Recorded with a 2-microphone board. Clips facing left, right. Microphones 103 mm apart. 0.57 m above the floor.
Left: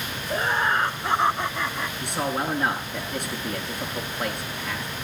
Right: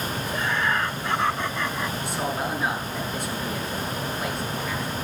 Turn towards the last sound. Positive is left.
turn(degrees=65)  # may be behind; listen again after turning